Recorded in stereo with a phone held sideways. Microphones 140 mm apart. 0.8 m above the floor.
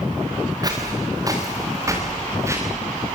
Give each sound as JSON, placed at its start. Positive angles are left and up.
{"t": 0.6, "sound": "footsteps", "side_deg": -30, "distance_m": 5.0}